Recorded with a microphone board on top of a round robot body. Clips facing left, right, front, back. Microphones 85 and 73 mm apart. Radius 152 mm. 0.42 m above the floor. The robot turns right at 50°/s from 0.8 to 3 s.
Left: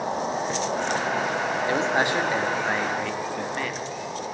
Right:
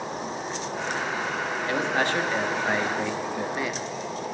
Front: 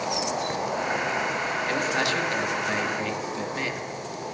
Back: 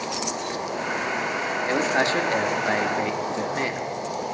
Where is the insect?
65° left, 1.0 m; by 4.3 s 175° left, 1.0 m.